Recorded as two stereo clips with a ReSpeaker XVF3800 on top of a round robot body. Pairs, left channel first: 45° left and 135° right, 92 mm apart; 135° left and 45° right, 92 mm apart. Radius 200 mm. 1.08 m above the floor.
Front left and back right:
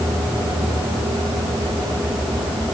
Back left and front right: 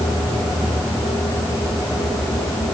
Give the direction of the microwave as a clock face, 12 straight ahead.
No microwave in this recording.